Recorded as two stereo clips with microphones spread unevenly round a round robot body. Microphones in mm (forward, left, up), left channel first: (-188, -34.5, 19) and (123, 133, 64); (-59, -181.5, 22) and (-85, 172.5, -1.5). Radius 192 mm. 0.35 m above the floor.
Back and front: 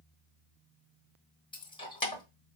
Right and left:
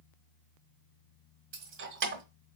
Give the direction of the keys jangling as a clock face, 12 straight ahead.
7 o'clock.